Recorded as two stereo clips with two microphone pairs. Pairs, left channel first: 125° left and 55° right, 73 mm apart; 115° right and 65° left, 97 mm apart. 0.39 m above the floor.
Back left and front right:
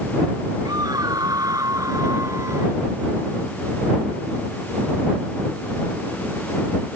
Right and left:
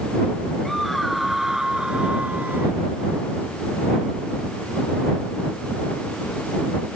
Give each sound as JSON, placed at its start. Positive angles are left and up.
{"t": 0.7, "sound": "a scream", "azimuth_deg": -30}